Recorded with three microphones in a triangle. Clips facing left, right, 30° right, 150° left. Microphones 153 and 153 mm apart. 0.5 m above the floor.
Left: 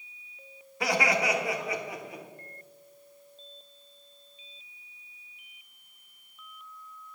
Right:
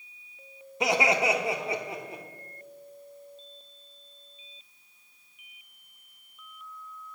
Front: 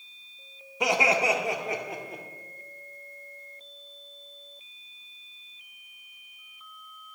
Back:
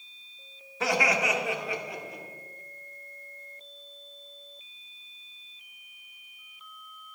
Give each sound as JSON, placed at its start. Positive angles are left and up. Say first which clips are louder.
{"t": 0.8, "sound": "laughter", "louder": "right 2 dB, front 2 dB", "azimuth_deg": -75, "distance_m": 0.8}